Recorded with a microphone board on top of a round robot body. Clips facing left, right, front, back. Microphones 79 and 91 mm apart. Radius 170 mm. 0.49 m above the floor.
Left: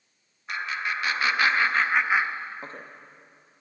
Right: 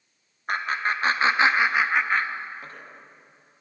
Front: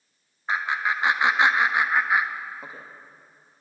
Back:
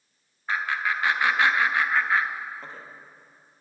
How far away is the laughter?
About 1.7 m.